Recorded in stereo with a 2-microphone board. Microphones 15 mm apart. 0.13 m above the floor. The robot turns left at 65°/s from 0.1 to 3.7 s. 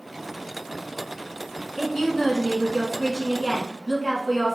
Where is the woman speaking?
20° left (ahead or behind), 1.1 m; by 4.5 s 10° right (ahead or behind), 1.1 m.